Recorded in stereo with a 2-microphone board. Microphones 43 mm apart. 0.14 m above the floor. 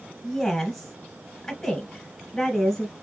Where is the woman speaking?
5° left (ahead or behind), 1.6 m.